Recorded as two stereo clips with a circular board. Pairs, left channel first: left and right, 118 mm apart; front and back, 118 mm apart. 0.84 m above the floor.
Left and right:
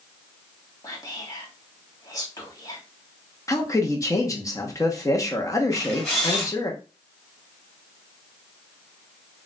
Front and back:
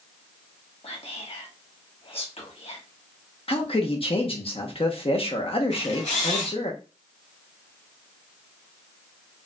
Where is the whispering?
30° left, 1.4 m.